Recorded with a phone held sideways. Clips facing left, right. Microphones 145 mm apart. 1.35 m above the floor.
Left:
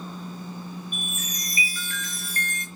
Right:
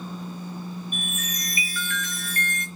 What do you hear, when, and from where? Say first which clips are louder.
0.9 s a chime: right 2 dB; 35° left (ahead or behind), 1.9 m